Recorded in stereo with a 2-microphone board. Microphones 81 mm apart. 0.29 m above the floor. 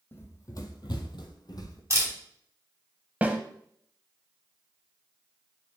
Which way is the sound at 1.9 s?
35° right (ahead or behind).